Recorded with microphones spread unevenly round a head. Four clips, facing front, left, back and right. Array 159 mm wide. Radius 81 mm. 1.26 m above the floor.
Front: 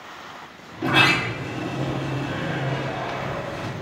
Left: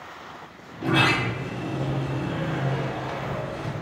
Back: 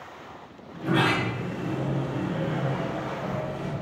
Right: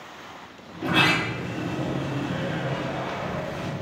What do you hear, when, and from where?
0.7 s a sliding door: 10° right, 2 m